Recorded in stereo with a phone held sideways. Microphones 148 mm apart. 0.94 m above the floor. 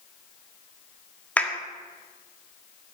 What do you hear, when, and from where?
1.4 s a clap: 10° left (ahead or behind), 1.6 m